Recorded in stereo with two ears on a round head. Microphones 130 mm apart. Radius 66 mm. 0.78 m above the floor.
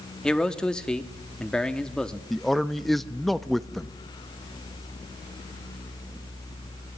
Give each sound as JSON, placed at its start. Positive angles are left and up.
{"t": 0.2, "sound": "a man speaking", "side_deg": 5, "distance_m": 1.0}
{"t": 2.3, "sound": "a man speaking", "side_deg": 0, "distance_m": 0.6}